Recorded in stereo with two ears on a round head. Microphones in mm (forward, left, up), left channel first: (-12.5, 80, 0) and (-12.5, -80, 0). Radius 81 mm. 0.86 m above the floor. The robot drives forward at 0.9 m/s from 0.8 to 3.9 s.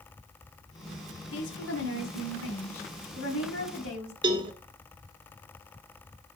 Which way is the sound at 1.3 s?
65° left (ahead or behind).